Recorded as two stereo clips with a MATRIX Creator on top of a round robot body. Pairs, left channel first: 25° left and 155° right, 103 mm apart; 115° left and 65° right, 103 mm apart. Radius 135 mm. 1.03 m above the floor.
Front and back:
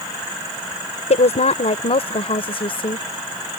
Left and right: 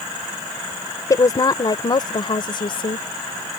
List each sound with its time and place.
1.1 s a woman speaking: 50° left; by 3.1 s 65° left